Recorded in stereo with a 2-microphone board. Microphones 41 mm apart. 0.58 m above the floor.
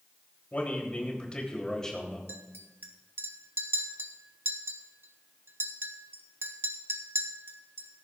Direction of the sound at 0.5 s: 40° left (ahead or behind).